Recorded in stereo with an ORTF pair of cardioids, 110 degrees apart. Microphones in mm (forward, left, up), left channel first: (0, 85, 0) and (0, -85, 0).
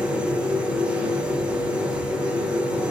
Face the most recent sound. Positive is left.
turn(degrees=-5)